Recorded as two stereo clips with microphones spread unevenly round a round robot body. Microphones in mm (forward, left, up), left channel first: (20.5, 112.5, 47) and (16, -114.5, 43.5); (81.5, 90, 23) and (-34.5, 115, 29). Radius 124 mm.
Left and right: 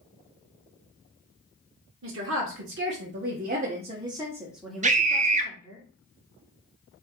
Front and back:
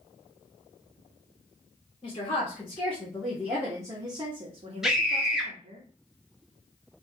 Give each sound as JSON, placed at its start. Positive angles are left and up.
{"t": 2.0, "sound": "a woman speaking", "azimuth_deg": -75, "distance_m": 1.4}
{"t": 4.8, "sound": "a scream", "azimuth_deg": -105, "distance_m": 0.8}